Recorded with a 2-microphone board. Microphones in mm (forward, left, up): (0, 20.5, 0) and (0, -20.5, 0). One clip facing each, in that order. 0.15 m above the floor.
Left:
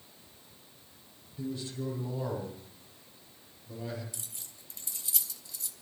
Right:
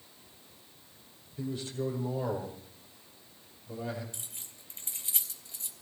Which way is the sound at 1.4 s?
45° right (ahead or behind).